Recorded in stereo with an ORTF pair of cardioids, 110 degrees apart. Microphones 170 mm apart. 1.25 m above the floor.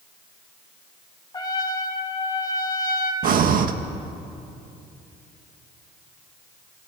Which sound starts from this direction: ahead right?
Breathing, at 3.2 s.